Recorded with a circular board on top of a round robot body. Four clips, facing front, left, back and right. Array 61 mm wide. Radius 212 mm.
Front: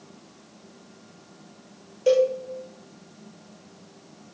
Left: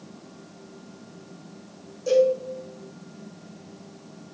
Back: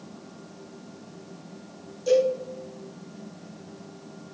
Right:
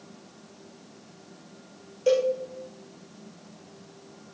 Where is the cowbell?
30° right, 4 m.